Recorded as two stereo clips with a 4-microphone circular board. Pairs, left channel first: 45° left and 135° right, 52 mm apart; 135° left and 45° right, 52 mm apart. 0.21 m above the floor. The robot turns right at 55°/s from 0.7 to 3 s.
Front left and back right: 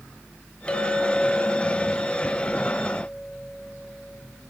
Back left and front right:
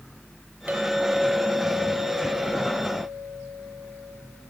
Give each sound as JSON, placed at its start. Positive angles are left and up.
{"t": 0.7, "sound": "a clink", "azimuth_deg": -15, "distance_m": 0.6}